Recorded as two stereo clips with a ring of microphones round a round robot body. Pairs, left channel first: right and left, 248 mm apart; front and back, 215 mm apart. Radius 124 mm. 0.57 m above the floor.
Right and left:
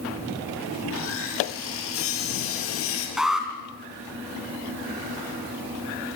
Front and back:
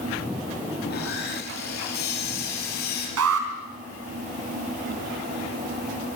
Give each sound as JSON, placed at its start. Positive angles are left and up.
{"t": 0.8, "sound": "sawing", "azimuth_deg": -55, "distance_m": 5.0}
{"t": 3.2, "sound": "an alarm", "azimuth_deg": 180, "distance_m": 3.5}